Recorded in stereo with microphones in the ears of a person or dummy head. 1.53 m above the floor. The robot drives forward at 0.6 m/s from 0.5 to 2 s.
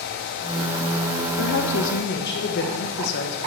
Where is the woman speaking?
65° left (ahead or behind), 1.3 m; by 3.4 s 50° left (ahead or behind), 1.5 m.